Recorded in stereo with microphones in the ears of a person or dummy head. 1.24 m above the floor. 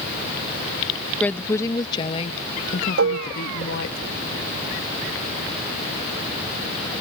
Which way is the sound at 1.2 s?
10° left (ahead or behind).